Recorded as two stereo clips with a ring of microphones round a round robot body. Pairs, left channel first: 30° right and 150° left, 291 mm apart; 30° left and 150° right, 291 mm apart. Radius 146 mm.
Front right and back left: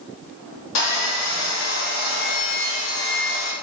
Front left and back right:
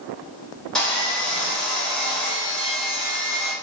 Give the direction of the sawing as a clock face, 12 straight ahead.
2 o'clock.